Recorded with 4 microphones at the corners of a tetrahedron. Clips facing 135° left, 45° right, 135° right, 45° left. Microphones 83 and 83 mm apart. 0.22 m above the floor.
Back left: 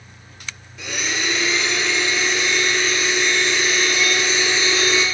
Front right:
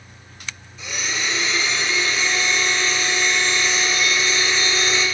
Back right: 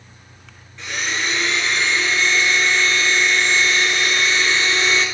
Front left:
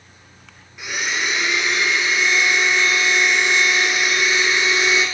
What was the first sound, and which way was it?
A blender, 125° left.